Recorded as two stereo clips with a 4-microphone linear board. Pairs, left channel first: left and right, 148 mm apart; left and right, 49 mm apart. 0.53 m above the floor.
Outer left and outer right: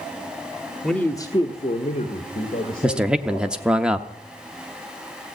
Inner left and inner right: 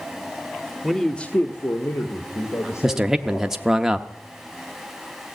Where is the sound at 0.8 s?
Centre (ahead or behind), 1.0 m; by 3.7 s 75° left (ahead or behind), 3 m.